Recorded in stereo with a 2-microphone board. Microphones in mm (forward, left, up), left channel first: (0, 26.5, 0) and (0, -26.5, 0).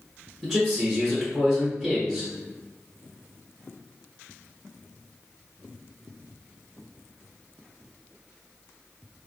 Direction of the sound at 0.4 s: 5° left (ahead or behind).